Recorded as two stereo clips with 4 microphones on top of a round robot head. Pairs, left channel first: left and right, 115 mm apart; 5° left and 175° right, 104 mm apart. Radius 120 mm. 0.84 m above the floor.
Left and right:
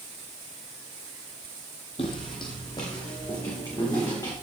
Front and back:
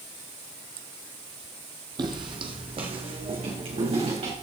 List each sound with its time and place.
2.0 s footsteps: 145° left, 1.4 m; by 4.3 s 155° left, 4.5 m